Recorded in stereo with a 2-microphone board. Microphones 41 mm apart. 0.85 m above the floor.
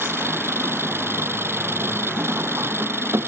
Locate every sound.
0.0 s an engine running: 85° right